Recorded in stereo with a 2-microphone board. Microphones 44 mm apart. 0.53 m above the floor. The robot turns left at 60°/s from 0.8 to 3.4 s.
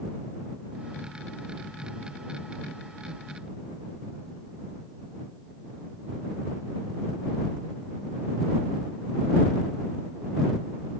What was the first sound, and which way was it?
Only background noise.